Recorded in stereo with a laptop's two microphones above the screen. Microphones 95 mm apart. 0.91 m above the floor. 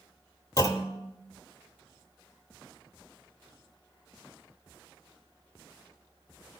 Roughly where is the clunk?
Left.